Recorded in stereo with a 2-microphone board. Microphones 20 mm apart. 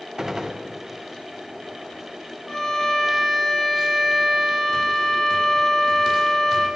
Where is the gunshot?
20° right (ahead or behind), 0.5 m.